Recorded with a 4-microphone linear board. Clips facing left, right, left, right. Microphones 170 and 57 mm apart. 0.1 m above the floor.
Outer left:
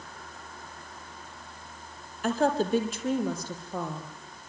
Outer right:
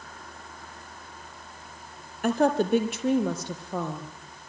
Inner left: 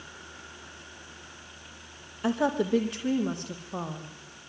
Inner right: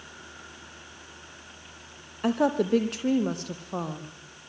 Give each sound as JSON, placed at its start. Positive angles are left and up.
{"t": 2.2, "sound": "a woman speaking", "side_deg": -60, "distance_m": 3.5}